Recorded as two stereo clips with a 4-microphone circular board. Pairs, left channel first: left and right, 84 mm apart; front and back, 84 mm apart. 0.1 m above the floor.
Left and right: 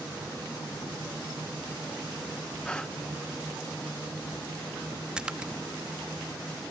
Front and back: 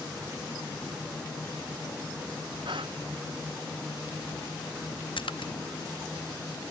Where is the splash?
10° right.